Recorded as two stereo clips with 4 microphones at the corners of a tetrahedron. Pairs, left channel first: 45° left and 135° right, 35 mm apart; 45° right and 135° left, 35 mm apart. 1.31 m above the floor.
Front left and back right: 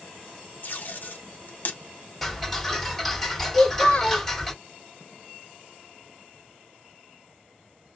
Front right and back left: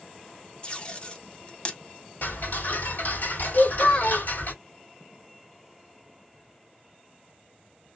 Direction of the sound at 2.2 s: 40° right.